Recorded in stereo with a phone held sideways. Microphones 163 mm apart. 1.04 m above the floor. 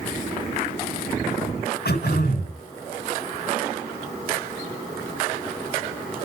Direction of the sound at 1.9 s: 85° left.